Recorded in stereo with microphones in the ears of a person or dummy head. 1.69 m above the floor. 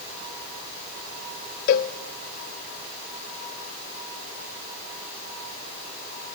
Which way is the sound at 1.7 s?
40° left (ahead or behind).